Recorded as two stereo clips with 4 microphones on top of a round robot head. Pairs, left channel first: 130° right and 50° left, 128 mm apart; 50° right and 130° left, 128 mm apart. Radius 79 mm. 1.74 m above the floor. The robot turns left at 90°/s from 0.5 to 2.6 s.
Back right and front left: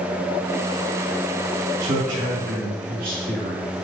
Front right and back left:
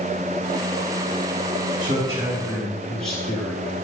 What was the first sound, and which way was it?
A man speaking, 110° left.